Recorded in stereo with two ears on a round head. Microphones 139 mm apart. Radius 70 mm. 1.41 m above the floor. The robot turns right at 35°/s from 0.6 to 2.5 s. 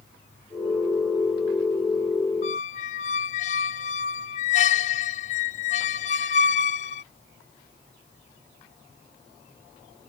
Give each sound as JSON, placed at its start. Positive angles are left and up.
{"t": 2.4, "sound": "a squeak", "side_deg": 45}